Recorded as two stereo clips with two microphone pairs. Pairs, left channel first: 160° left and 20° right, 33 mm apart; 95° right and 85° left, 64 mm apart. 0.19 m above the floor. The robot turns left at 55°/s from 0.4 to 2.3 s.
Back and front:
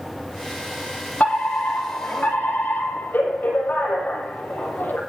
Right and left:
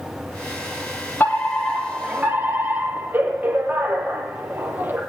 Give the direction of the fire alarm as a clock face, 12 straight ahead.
5 o'clock.